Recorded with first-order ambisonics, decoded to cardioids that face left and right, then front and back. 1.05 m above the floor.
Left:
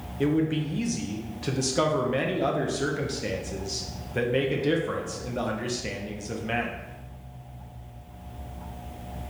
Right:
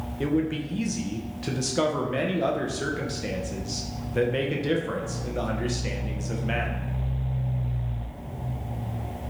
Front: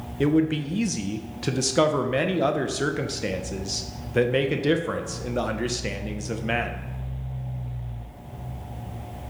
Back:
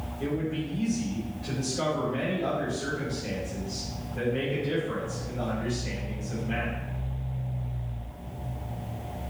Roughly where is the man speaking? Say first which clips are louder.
Left 1 dB, front 9 dB; ahead.